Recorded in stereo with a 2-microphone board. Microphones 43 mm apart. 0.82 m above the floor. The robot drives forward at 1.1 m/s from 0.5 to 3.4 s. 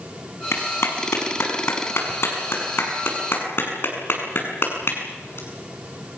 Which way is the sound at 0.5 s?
85° left.